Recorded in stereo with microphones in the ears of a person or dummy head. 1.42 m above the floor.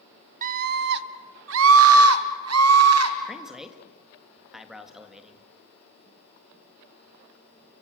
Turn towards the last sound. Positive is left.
turn(degrees=-5)  # may be behind; listen again after turning